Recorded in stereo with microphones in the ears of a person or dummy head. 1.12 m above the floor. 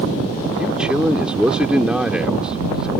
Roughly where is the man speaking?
Centre.